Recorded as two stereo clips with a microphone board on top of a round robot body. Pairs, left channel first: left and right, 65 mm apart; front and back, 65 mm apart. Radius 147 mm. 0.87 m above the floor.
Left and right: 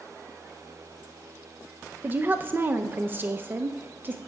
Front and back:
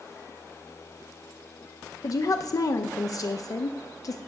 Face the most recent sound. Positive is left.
turn(degrees=-30)